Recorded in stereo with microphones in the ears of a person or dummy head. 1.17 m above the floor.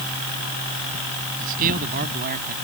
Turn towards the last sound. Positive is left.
turn(degrees=-50)  # may be behind; listen again after turning